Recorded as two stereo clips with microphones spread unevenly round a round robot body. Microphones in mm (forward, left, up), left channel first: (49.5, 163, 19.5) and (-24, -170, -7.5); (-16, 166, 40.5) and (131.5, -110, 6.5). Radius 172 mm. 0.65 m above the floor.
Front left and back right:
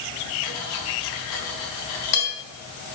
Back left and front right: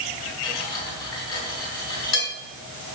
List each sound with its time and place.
0.4 s cutlery clinking: 75° left, 3.5 m